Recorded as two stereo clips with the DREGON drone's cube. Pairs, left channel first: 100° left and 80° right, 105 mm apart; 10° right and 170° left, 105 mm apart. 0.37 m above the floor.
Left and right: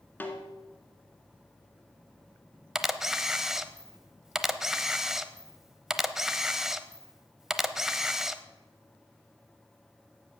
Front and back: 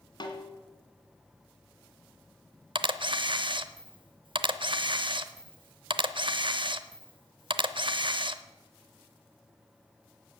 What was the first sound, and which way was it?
A snare drum, 30° left.